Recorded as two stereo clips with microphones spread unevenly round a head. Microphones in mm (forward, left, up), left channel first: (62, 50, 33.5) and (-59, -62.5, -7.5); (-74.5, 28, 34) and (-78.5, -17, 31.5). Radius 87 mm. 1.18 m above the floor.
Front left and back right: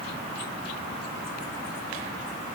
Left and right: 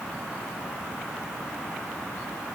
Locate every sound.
Only background noise.